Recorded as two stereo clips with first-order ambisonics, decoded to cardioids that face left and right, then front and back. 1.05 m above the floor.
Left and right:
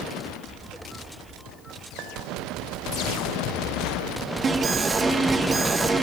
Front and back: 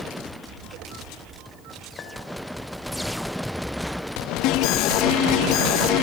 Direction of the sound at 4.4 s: 20° right.